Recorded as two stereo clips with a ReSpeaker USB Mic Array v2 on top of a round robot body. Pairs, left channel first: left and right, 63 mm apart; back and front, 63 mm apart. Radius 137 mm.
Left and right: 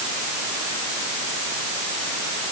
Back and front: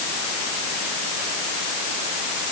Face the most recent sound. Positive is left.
No sound to turn to.